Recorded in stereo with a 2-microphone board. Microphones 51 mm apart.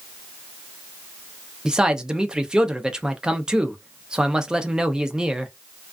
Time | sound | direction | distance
1.6 | a man speaking | 15° right (ahead or behind) | 0.5 m